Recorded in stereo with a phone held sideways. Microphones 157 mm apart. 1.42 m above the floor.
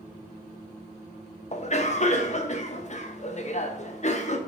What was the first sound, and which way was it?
A cough, 50° left (ahead or behind).